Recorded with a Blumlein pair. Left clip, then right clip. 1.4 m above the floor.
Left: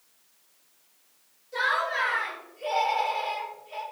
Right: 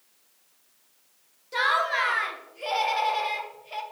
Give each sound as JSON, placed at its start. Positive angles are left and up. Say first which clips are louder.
{"t": 1.5, "sound": "laughter", "louder": "right 2 dB", "azimuth_deg": -60, "distance_m": 1.0}